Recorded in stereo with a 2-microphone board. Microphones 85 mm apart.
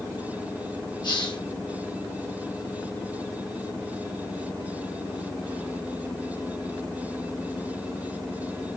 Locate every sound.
1.0 s a hiss: 60° left (ahead or behind), 0.9 m